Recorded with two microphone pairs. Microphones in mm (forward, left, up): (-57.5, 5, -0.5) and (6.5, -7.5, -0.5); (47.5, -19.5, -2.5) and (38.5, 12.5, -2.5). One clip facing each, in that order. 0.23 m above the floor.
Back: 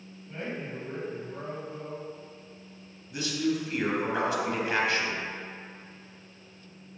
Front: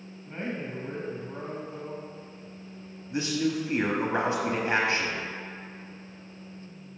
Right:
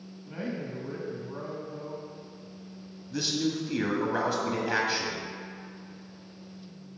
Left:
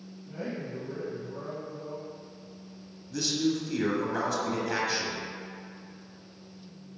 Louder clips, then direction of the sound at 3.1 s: Front 1 dB, left 1 dB; 25° right.